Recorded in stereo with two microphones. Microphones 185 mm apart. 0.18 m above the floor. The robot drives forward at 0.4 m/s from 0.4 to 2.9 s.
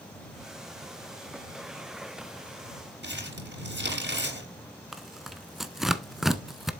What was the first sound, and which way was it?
Crumpling, 70° right (ahead or behind).